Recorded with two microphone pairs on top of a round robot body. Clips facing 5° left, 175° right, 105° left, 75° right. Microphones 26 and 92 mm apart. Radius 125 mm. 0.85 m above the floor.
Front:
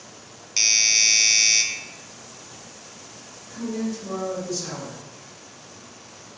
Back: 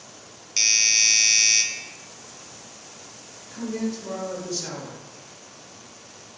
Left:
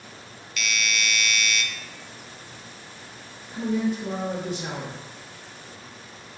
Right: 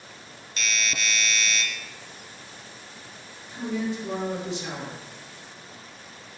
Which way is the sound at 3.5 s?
110° left.